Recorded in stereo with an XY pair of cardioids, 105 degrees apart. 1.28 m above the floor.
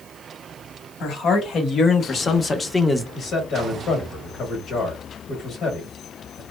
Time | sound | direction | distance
1.0 | a man speaking | 70° left | 1.3 m
3.1 | a man speaking | 65° left | 1.1 m